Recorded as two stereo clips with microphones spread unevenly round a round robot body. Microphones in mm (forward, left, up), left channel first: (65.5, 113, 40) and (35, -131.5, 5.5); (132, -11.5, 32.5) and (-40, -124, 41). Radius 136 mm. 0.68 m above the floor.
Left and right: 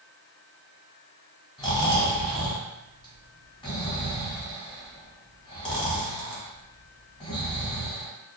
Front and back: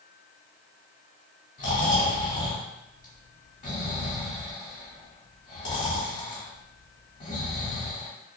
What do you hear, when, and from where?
1.6 s snoring: 10° left, 1.5 m